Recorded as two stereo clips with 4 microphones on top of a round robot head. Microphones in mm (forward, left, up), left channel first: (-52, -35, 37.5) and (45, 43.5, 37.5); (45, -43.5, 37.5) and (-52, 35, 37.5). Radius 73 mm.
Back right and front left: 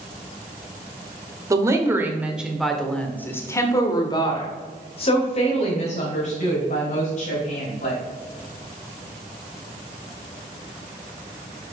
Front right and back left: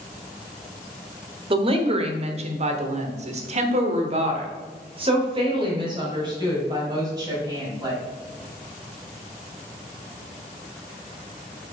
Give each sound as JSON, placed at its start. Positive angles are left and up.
{"t": 1.5, "sound": "a woman speaking", "azimuth_deg": 100, "distance_m": 1.4}